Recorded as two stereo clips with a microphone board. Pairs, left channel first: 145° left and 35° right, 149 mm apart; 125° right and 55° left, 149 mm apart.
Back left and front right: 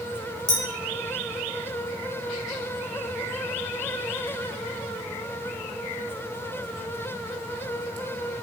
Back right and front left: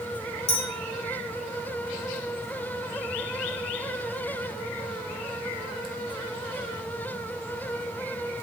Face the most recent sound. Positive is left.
turn(degrees=-90)